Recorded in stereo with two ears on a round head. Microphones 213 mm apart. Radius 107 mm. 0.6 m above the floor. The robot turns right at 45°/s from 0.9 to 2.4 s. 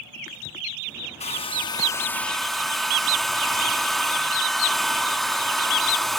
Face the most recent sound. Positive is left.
turn(degrees=180)